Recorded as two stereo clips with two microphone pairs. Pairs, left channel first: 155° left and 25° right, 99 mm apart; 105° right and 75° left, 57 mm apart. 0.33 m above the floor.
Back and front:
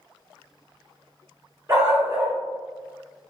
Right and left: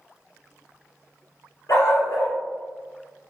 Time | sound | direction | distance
1.7 | a dog barking | 90° right | 1.4 m